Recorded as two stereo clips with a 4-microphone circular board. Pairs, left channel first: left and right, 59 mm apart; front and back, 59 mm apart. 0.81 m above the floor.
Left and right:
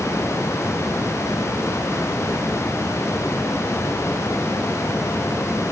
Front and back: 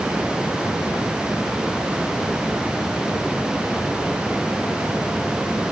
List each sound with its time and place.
Only background noise.